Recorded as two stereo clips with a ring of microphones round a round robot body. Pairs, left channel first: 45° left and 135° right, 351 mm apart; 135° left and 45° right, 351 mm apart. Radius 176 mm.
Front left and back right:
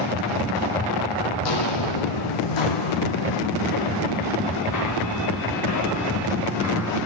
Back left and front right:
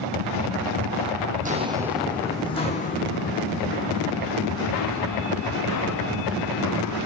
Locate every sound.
1.4 s footsteps: 20° left, 1.6 m; by 7.0 s 95° left, 7 m